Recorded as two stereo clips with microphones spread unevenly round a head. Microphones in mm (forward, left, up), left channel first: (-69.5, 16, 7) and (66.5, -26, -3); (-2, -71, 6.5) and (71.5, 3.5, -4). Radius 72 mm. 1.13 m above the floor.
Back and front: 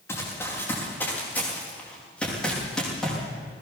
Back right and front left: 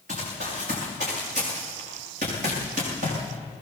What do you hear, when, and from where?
0.1 s running footsteps: 90° left, 6.5 m; by 3.2 s 75° left, 7.5 m